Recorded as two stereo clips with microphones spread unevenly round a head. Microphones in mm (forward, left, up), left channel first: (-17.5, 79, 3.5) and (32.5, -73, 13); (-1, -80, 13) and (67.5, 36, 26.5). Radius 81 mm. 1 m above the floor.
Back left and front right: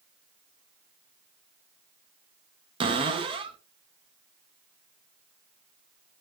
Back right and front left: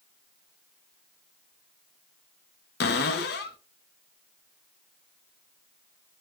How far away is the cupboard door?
About 0.5 m.